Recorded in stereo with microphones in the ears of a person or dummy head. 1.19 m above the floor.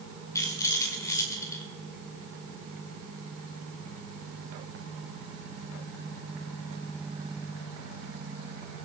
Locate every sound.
0.3 s a rattle: 15° left (ahead or behind), 2.0 m